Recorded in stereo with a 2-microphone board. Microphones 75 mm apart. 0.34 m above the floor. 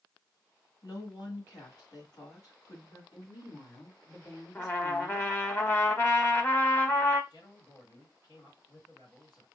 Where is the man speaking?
65° left (ahead or behind), 3.5 m.